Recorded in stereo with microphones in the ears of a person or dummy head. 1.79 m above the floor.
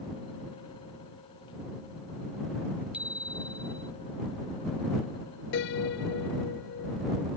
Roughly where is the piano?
Left.